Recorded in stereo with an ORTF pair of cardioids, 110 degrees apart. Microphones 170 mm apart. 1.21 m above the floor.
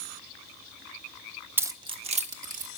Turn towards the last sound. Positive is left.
turn(degrees=-50)